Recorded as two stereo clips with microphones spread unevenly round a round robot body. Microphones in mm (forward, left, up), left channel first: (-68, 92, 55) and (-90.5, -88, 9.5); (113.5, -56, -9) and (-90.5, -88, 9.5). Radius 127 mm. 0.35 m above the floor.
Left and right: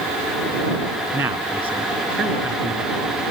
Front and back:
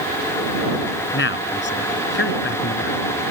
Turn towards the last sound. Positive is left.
turn(degrees=-20)